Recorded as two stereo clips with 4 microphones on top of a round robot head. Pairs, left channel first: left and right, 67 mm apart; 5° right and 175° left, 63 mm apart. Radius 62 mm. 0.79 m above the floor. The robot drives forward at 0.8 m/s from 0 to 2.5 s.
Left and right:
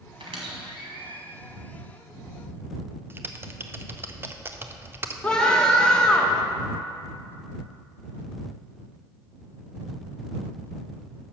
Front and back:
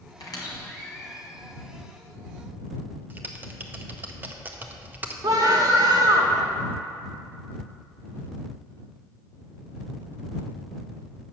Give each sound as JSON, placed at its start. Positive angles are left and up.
{"t": 0.2, "sound": "a squeak", "azimuth_deg": -55, "distance_m": 1.3}
{"t": 3.1, "sound": "typing on a keyboard", "azimuth_deg": -135, "distance_m": 0.7}
{"t": 5.2, "sound": "a scream", "azimuth_deg": 170, "distance_m": 1.5}